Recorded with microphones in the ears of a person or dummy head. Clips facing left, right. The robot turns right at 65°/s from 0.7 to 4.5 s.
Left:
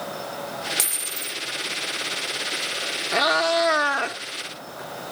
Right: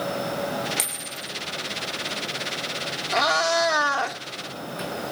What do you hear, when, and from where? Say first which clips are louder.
0.8 s a dropped coin: even; straight ahead, 0.8 m; by 1.4 s 35° left, 0.8 m
3.1 s a cat meowing: left 1 dB; 20° left (ahead or behind), 0.9 m; by 4.2 s 15° left (ahead or behind), 0.9 m